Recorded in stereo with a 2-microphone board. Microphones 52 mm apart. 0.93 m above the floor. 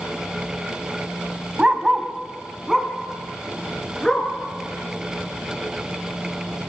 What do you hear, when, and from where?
1.6 s a dog barking: 20° right (ahead or behind), 2 m; by 4.3 s 10° left (ahead or behind), 5 m